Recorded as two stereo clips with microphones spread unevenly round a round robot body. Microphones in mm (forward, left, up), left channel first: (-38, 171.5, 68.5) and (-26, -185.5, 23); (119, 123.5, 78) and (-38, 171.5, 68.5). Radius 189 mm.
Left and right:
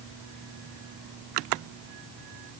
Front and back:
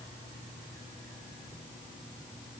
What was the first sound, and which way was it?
Only background noise.